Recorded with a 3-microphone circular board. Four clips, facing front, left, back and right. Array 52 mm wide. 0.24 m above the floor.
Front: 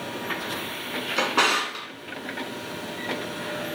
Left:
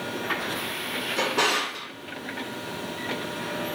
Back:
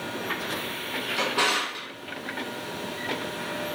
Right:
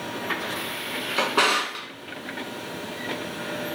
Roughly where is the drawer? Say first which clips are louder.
Right 3 dB, front 3 dB; ahead right.